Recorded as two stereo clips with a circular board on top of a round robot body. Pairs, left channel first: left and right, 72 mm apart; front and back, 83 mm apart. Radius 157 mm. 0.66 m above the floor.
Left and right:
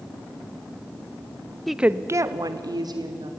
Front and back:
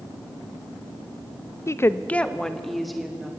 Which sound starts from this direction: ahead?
A woman speaking, at 1.7 s.